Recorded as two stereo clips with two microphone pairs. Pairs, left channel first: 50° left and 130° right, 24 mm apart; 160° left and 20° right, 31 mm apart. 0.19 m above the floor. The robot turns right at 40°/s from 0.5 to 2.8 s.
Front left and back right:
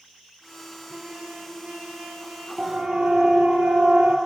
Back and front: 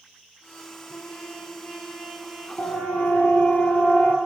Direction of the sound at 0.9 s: 175° right.